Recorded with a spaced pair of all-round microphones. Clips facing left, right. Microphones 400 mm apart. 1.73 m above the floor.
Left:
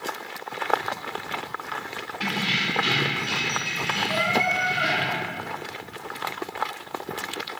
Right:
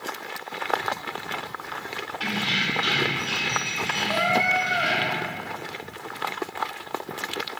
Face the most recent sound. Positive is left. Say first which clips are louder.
# right 1 dB
turn(degrees=5)  # may be behind; listen again after turning